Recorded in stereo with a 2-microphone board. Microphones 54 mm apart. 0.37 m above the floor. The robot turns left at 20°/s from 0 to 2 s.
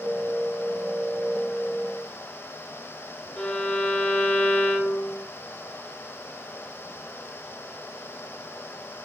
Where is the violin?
20° left (ahead or behind), 0.8 m.